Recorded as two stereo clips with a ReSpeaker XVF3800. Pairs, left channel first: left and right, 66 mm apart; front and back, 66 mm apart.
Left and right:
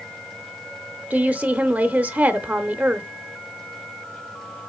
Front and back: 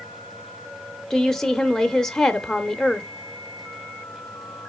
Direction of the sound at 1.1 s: 70° right.